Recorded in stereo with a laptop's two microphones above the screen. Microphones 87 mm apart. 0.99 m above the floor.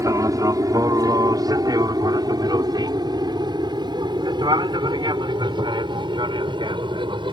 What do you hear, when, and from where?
0.0 s an aircraft: 40° right (ahead or behind); by 7.3 s 60° right (ahead or behind)